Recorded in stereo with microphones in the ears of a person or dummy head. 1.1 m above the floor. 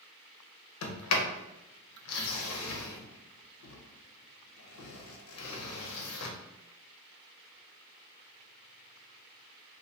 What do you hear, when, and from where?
0.8 s a sliding door: 75° left (ahead or behind), 0.5 m